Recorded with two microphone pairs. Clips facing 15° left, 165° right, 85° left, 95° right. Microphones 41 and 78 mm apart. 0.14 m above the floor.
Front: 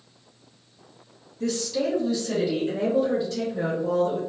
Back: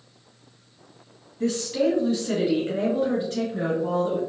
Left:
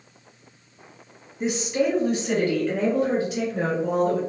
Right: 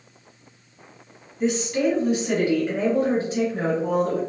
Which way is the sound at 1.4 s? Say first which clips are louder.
Back 3 dB, right 1 dB; 155° left.